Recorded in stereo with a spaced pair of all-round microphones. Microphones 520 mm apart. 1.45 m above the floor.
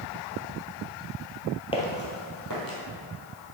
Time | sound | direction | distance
1.7 | footsteps | 10° left (ahead or behind) | 1.5 m